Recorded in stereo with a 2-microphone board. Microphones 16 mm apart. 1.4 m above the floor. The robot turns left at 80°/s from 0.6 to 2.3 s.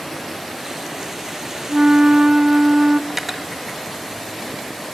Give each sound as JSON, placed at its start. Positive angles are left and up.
{"t": 1.7, "sound": "a flute", "azimuth_deg": -60, "distance_m": 0.6}
{"t": 3.1, "sound": "cutlery clinking", "side_deg": -20, "distance_m": 0.9}